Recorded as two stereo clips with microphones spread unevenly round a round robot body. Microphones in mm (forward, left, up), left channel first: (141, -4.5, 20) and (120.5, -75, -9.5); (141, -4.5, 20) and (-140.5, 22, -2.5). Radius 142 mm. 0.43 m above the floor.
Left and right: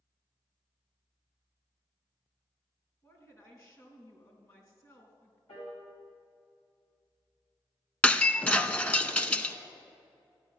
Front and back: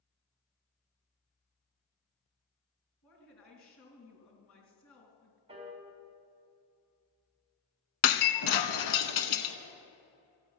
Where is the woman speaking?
30° left, 4 m.